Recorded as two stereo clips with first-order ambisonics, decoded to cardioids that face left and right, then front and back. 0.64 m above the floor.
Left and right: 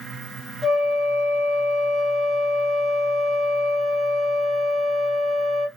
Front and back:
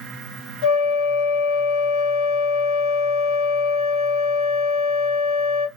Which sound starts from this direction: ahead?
A flute, at 0.6 s.